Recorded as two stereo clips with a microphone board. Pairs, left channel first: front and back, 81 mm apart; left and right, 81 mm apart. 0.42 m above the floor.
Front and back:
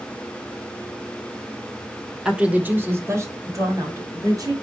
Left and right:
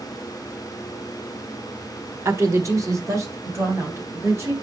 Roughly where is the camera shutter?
I don't hear a camera shutter.